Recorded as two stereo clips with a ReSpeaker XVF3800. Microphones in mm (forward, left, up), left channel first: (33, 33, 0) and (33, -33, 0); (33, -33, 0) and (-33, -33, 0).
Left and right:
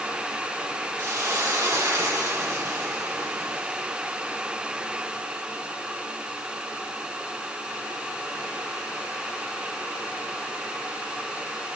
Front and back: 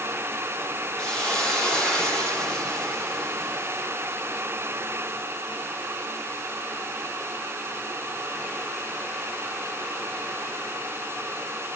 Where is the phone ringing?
I don't hear a phone ringing.